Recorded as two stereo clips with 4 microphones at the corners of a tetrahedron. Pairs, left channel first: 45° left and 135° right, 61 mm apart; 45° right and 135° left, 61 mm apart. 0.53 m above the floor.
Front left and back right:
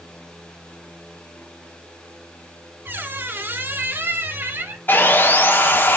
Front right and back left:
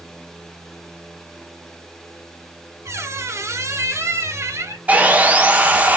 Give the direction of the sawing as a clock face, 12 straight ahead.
9 o'clock.